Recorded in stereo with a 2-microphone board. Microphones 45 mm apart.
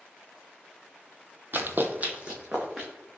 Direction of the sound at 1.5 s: 45° right (ahead or behind).